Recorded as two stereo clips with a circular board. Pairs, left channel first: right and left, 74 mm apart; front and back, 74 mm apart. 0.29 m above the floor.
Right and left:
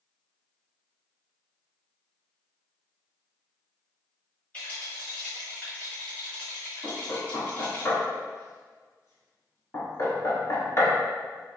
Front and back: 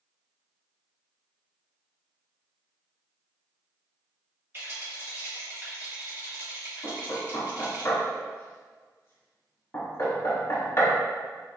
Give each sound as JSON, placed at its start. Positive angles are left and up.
{"t": 4.5, "sound": "a rattle", "azimuth_deg": -145, "distance_m": 1.9}
{"t": 6.8, "sound": "knocking", "azimuth_deg": -45, "distance_m": 1.9}